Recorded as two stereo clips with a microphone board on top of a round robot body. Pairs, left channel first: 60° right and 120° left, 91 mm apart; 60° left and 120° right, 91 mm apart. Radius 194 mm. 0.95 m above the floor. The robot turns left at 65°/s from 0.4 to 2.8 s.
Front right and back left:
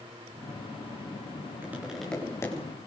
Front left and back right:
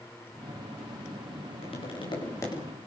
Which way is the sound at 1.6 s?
55° left.